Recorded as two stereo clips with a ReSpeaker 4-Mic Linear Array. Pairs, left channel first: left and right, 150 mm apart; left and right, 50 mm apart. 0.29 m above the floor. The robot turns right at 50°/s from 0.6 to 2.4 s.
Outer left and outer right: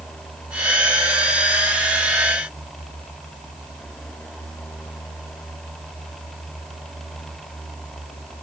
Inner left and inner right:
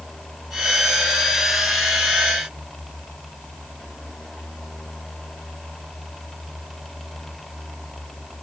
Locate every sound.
Only background noise.